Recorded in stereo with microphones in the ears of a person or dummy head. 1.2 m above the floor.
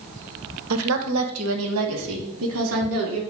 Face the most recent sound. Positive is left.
turn(degrees=-75)  # may be behind; listen again after turning